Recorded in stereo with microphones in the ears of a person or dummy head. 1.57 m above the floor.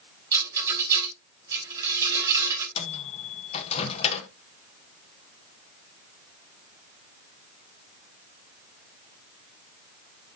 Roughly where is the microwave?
Left.